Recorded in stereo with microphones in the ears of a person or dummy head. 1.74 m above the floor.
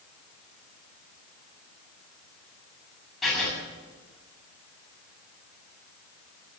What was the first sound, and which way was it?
Writing, 5° right (ahead or behind).